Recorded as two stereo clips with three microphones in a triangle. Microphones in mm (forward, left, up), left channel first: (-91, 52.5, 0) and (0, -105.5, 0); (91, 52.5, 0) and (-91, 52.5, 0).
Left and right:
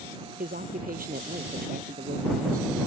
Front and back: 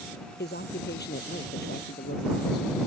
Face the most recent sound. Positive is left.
turn(degrees=-25)